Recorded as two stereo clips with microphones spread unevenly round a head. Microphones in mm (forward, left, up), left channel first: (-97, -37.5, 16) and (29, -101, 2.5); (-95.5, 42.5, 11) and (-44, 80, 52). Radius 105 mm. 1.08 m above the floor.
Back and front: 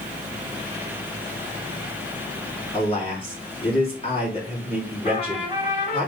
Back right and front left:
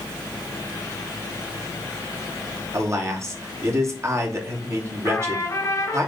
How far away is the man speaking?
About 2.5 m.